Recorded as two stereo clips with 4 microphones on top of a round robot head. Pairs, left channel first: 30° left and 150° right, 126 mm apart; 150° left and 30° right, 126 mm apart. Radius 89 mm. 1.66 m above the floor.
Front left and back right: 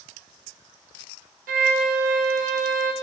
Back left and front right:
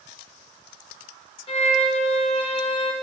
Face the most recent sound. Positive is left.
turn(degrees=-165)